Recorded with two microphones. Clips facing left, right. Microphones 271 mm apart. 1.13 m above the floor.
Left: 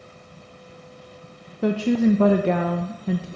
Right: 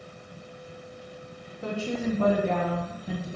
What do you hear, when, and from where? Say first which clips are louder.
1.6 s a woman speaking: left 11 dB; 70° left (ahead or behind), 0.7 m